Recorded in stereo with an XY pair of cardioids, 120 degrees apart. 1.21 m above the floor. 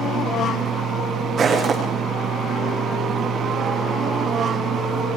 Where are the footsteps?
40° right, 6 m.